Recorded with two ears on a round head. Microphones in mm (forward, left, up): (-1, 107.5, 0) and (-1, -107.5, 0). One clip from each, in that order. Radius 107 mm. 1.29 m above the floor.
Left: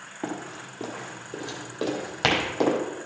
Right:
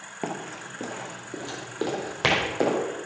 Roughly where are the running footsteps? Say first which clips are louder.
Right 1 dB; right.